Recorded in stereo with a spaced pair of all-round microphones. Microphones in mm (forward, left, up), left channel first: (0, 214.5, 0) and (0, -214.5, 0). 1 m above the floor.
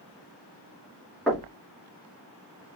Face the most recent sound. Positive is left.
turn(degrees=0)  # may be behind; listen again after turning